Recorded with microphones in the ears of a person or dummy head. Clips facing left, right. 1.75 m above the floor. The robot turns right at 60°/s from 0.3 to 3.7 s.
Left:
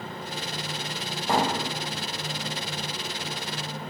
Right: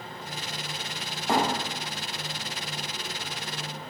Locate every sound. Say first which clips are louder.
1.3 s a thud: even; centre (ahead or behind), 1.7 m; by 1.5 s 10° left (ahead or behind), 1.7 m